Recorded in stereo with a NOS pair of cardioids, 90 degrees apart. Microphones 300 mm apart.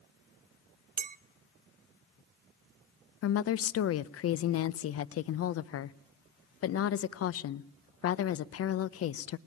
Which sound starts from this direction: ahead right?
A clink, at 1.0 s.